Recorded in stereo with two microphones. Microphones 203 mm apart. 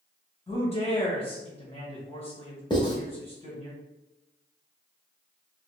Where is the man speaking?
30° left (ahead or behind), 1.5 m.